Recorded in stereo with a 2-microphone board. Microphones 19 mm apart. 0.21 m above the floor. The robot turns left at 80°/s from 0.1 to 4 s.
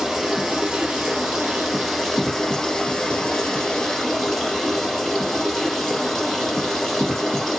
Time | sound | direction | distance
0.0 | running water | 25° right | 2.5 m